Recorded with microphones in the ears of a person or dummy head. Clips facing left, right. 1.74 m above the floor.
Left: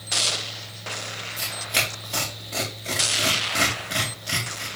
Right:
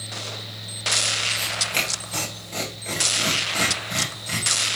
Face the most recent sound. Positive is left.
turn(degrees=5)  # may be behind; listen again after turning